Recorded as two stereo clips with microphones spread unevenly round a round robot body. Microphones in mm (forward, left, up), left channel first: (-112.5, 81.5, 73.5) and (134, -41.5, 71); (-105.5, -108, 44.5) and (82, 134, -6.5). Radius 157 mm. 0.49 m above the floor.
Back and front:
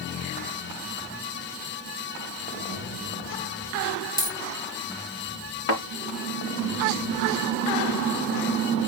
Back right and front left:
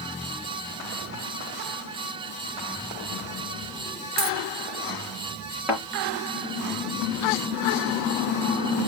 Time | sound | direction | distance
4.2 | a dropped coin | 75° left | 3.5 m
5.7 | a thud | 135° left | 4.5 m